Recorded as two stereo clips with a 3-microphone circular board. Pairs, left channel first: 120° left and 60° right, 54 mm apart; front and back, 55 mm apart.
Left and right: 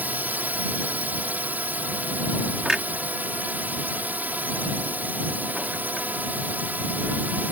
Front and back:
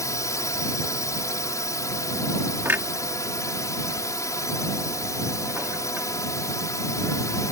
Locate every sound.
0.0 s a drone: 5° right
2.6 s a clunk: 140° right